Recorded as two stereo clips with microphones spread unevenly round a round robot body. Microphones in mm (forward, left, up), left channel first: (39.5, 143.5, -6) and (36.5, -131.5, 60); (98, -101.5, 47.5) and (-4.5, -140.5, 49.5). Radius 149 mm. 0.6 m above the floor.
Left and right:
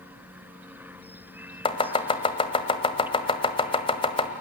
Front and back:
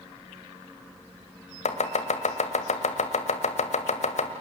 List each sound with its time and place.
1.6 s chopping: 20° left, 1.7 m